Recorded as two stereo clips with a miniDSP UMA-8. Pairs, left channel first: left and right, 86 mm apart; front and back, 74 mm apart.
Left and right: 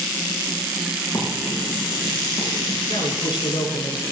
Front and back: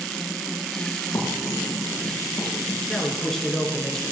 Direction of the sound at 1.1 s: 45° left.